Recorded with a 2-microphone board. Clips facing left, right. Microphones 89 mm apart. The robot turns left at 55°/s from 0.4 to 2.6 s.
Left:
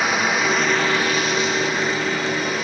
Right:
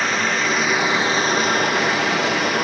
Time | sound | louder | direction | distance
0.0 | running water | left 1 dB | 10° left | 0.8 m